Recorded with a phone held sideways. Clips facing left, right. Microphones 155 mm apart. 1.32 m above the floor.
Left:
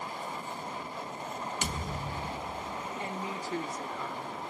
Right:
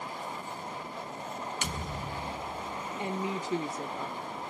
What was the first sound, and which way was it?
A thud, 40° left (ahead or behind).